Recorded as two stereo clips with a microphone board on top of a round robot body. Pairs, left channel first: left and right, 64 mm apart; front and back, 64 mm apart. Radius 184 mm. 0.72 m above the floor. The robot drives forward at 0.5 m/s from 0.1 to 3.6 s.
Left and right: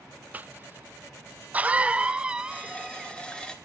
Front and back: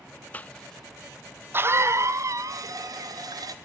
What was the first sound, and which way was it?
A cough, 45° right.